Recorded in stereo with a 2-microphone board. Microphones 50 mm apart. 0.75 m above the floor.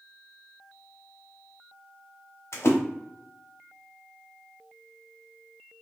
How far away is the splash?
About 0.6 m.